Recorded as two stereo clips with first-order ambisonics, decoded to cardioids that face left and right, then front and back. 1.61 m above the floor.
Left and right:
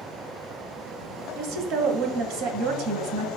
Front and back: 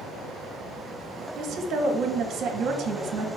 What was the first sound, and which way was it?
A woman speaking, 125° right.